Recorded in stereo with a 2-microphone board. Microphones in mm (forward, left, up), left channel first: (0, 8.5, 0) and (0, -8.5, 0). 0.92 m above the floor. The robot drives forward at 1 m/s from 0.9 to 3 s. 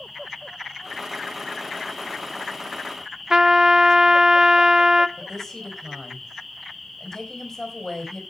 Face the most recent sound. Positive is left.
turn(degrees=20)  # may be behind; listen again after turning